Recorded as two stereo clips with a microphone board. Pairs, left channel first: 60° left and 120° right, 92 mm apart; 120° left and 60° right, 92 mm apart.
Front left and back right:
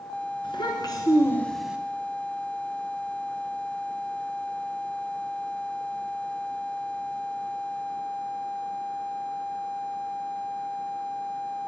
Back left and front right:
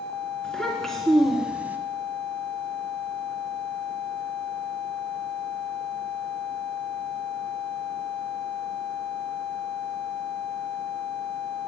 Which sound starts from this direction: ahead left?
A child speaking, at 0.4 s.